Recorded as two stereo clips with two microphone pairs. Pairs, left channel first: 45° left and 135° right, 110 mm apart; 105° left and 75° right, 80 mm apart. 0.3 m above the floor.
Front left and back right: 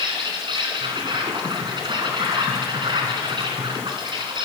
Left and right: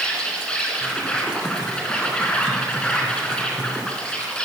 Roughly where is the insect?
Behind.